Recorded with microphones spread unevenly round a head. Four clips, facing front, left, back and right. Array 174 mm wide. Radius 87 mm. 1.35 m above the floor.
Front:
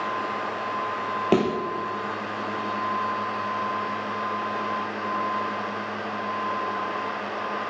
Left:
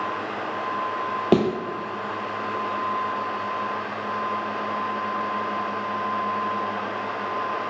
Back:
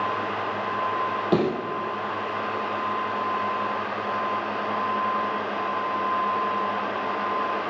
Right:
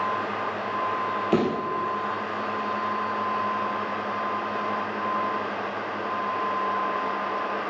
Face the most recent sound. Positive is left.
turn(degrees=70)